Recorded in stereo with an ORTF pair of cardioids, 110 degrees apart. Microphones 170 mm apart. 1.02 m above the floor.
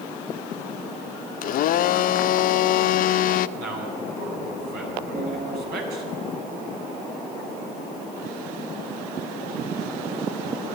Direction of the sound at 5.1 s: 50° right.